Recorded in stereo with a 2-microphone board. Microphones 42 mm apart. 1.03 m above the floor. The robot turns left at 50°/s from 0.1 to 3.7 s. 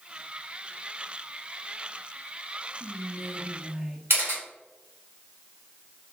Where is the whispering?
105° right, 0.8 m; by 4.0 s 150° right, 0.8 m.